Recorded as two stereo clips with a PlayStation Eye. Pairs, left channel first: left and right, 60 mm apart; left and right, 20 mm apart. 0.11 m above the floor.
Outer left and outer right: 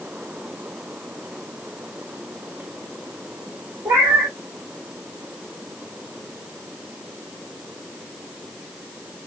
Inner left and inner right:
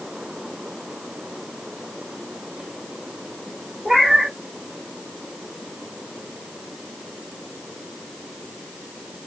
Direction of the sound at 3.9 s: 65° right (ahead or behind).